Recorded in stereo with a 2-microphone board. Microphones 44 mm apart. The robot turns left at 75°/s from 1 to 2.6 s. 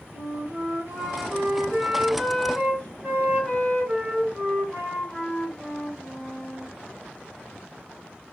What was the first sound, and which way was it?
A flute, 95° right.